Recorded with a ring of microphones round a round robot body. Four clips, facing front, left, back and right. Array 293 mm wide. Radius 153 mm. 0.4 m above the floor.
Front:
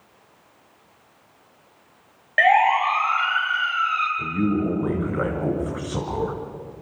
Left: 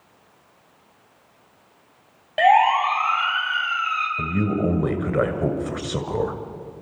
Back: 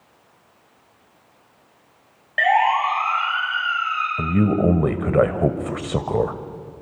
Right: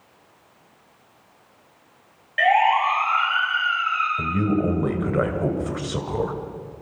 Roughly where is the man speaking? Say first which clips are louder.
Even, back 8 dB; behind.